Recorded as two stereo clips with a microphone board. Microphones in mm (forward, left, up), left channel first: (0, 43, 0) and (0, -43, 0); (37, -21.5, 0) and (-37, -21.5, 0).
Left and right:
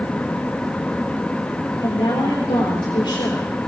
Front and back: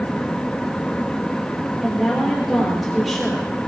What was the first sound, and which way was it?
A woman speaking, 90° left.